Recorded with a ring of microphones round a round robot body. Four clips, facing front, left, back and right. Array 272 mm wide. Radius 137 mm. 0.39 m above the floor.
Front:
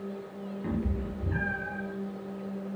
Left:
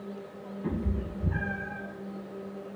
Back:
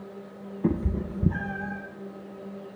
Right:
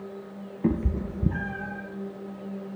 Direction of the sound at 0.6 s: 135° right.